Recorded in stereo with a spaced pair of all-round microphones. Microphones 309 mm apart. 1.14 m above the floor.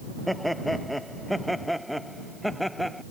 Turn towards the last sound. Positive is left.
turn(degrees=0)  # may be behind; listen again after turning